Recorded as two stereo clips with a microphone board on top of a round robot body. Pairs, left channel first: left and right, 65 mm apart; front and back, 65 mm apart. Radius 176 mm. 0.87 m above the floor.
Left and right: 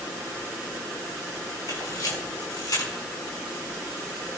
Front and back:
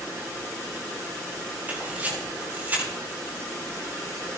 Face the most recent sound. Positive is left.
turn(degrees=115)